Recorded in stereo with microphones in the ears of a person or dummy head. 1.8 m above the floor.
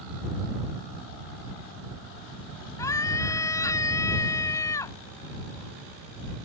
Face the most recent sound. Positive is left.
turn(degrees=25)  # may be behind; listen again after turning